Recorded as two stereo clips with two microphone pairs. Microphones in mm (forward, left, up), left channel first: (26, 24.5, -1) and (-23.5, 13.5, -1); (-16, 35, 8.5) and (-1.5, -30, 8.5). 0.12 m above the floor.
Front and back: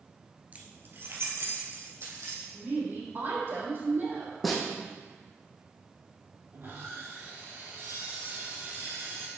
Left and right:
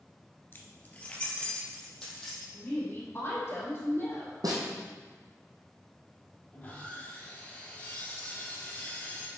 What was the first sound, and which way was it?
Keys jangling, 150° left.